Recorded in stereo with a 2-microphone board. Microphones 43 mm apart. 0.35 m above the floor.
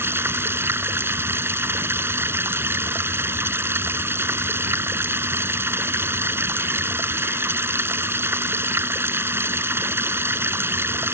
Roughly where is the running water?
Right.